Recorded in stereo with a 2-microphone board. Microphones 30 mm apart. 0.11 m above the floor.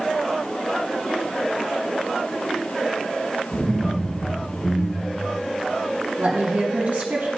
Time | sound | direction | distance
3.5 | laughter | 10° left (ahead or behind) | 3.5 m
6.2 | a woman speaking | 55° right (ahead or behind) | 3.5 m